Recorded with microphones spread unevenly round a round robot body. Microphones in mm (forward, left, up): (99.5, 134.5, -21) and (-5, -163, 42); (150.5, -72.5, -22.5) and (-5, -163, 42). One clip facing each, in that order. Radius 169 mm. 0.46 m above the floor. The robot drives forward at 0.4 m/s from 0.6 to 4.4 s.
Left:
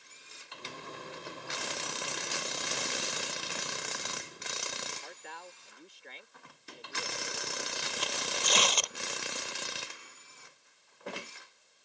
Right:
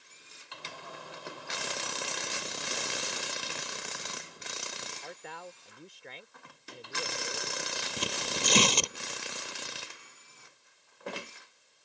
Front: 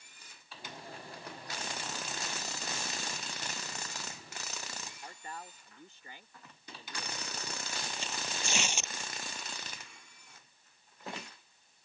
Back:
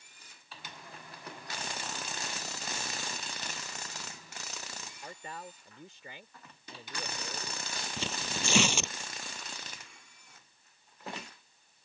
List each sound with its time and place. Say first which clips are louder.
5.0 s a man speaking: right 4 dB, back 5 dB; 145° right
8.0 s tearing paper: right 4 dB, back 4 dB; 170° right